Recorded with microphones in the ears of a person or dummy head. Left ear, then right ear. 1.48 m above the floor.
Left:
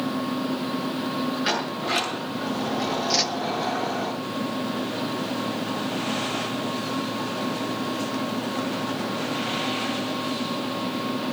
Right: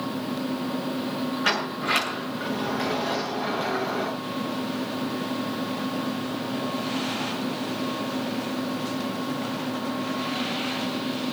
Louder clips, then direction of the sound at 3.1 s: Left 5 dB; 65° left (ahead or behind).